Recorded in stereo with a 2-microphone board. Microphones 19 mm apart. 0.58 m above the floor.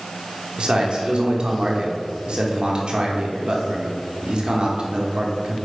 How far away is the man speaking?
About 1.0 m.